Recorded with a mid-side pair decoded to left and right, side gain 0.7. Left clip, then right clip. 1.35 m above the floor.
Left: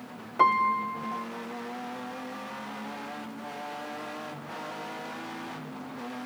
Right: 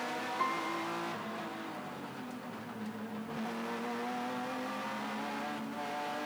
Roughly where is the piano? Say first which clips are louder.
Left 14 dB; ahead left.